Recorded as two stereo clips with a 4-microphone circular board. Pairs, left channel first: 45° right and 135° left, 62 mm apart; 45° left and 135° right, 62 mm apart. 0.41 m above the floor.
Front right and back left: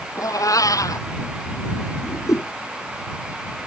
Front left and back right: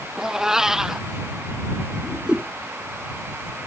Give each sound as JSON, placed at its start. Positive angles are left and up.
{"t": 0.2, "sound": "a cat meowing", "azimuth_deg": -55}
{"t": 2.0, "sound": "a whoosh", "azimuth_deg": -60}